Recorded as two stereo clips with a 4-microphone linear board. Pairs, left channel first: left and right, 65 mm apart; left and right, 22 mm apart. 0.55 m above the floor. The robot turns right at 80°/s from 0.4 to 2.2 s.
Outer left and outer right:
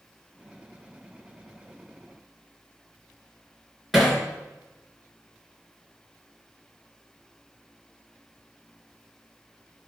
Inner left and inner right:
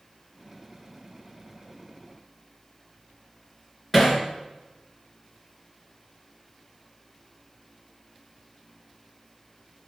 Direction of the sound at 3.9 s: 5° right (ahead or behind).